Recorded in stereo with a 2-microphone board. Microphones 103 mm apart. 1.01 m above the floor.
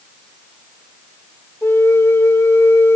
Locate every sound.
1.6 s a flute: 25° left (ahead or behind), 0.7 m